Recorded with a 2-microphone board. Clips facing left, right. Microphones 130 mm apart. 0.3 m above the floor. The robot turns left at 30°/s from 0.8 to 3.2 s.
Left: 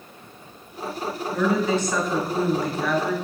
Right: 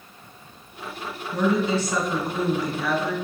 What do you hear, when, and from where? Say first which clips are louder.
1.3 s a woman speaking: even; 140° right, 1.5 m; by 3.1 s 165° left, 1.5 m